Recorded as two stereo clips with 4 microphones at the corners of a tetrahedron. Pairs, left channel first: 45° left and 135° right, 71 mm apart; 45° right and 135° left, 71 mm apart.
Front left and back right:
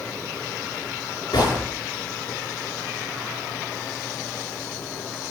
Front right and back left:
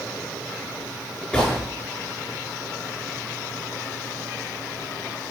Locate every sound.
1.3 s a gunshot: 30° left, 6 m